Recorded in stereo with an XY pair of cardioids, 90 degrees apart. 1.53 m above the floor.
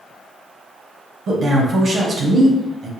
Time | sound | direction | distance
1.3 | a man speaking | 60° right | 1.3 m